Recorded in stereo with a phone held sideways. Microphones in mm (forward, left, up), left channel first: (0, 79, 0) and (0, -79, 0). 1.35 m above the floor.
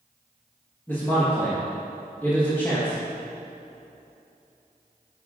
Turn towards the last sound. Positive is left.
turn(degrees=10)  # may be behind; listen again after turning